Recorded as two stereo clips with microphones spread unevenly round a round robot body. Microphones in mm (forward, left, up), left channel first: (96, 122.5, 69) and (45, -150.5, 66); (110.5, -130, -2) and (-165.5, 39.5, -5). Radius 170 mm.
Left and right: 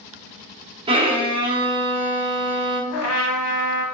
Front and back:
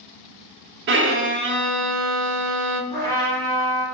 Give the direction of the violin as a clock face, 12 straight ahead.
6 o'clock.